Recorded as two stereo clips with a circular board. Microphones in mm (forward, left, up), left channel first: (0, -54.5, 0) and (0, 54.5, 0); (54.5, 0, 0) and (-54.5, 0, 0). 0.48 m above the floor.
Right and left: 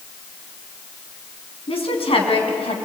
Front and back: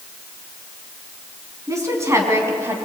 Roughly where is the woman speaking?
Behind right.